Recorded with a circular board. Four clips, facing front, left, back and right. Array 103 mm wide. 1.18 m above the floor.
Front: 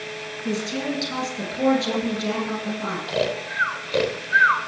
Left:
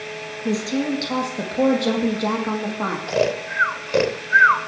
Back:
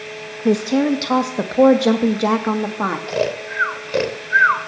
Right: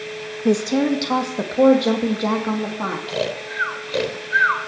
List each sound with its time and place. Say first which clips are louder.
0.5 s a woman speaking: right 5 dB, back 11 dB; 145° right, 1.4 m; by 3.0 s 175° left, 2.5 m
3.1 s snoring: left 4 dB, back 3 dB; 125° left, 0.9 m